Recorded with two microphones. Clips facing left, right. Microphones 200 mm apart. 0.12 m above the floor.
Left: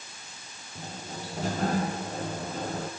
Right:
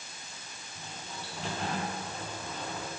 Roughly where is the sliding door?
Left.